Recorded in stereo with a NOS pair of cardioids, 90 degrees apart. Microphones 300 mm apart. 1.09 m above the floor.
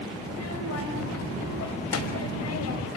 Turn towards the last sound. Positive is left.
turn(degrees=55)